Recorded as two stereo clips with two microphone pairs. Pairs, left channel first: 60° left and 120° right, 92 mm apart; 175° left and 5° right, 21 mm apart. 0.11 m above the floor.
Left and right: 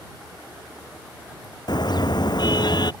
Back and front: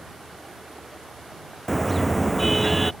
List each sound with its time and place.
1.7 s a car horn: 95° left